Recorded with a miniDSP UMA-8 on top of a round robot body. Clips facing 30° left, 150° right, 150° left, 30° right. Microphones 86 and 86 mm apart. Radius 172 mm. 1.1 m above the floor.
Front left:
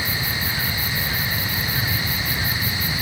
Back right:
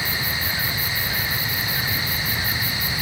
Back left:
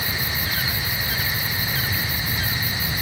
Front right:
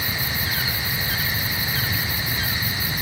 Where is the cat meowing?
I don't hear a cat meowing.